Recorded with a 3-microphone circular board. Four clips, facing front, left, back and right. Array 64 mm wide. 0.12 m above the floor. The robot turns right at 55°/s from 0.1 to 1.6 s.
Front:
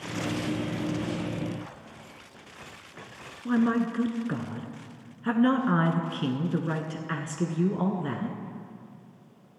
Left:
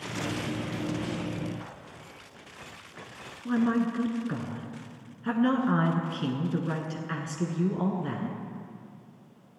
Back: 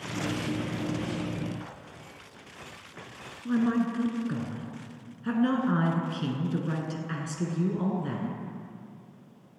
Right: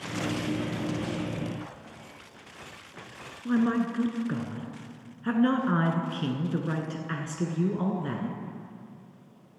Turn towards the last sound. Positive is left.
turn(degrees=-15)